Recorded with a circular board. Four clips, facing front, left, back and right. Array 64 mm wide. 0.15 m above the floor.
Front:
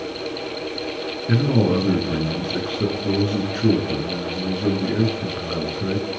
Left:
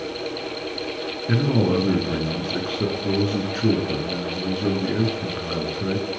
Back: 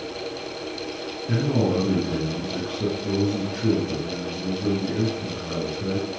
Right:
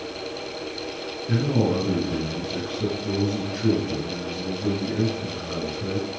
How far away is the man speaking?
About 1.8 m.